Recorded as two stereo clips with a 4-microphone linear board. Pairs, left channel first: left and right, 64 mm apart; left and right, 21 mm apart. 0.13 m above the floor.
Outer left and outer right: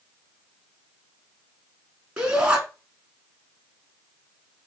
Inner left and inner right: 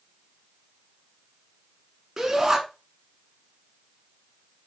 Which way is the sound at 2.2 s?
15° right (ahead or behind).